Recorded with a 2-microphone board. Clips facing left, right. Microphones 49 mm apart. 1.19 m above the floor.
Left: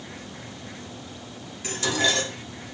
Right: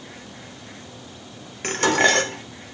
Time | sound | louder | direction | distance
1.6 | dishes clattering | right 7 dB | 50° right (ahead or behind) | 0.6 m